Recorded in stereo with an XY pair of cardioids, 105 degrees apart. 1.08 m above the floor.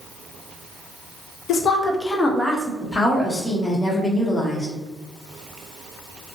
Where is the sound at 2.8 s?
20° left, 0.8 m.